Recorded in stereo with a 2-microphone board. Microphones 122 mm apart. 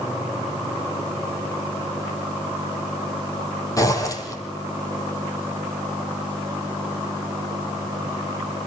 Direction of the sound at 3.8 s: 25° left (ahead or behind).